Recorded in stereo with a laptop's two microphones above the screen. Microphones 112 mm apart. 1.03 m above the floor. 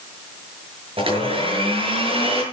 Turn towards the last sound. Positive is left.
turn(degrees=-55)  # may be behind; listen again after turning